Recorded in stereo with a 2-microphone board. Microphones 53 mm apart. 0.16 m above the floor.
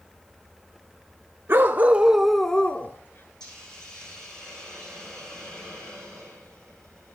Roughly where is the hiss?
Centre.